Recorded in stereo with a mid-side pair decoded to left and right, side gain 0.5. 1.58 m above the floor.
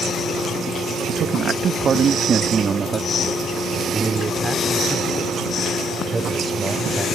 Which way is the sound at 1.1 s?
60° right.